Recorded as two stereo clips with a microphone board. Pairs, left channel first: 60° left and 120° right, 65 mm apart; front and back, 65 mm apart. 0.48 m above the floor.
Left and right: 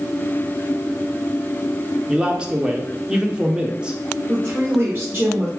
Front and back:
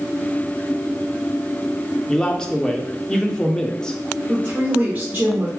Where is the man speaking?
65° right, 0.7 m.